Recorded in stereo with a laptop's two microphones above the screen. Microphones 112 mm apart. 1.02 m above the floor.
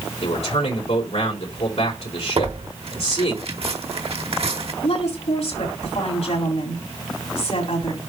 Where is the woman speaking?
70° left (ahead or behind), 7 m.